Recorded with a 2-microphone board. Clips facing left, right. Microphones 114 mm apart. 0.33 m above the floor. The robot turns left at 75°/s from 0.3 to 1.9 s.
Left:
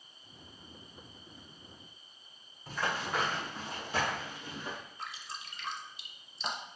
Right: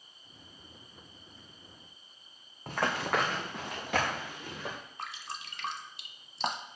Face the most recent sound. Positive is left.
turn(degrees=-70)  # may be behind; listen again after turning